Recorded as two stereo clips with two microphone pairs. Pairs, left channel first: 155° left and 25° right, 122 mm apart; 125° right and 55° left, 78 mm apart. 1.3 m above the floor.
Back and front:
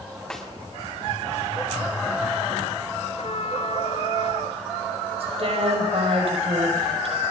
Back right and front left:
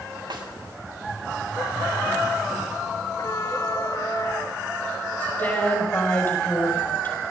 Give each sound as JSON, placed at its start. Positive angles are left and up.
{"t": 0.3, "sound": "a snare drum", "azimuth_deg": 70, "distance_m": 5.5}
{"t": 3.2, "sound": "a trumpet", "azimuth_deg": -175, "distance_m": 1.3}
{"t": 5.2, "sound": "a woman speaking", "azimuth_deg": -65, "distance_m": 5.5}